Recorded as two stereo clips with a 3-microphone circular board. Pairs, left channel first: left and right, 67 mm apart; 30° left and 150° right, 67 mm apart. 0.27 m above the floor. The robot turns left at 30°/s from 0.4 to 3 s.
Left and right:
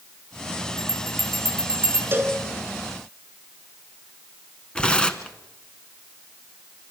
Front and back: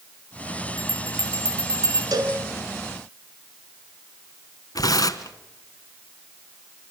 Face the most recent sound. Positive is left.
turn(degrees=15)